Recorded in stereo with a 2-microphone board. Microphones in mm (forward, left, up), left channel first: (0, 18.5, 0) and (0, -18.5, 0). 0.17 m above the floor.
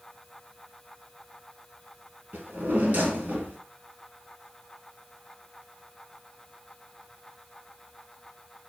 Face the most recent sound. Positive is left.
turn(degrees=-50)  # may be behind; listen again after turning